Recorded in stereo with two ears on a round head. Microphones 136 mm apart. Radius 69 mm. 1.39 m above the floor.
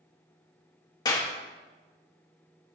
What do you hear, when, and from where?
1.1 s a clap: 25° left (ahead or behind), 1.3 m